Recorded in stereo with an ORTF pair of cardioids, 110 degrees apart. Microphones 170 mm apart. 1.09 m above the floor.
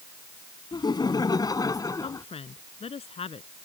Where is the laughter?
25° left; by 2.2 s 20° left.